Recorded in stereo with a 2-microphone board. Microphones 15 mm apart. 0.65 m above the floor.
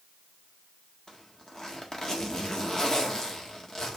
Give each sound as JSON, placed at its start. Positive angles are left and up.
{"t": 1.1, "sound": "a zipper", "side_deg": 40, "distance_m": 1.5}